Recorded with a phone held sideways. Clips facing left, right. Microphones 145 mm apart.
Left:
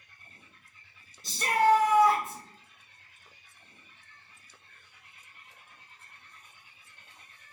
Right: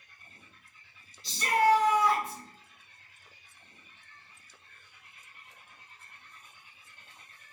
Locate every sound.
1.2 s a shout: 45° left (ahead or behind), 0.9 m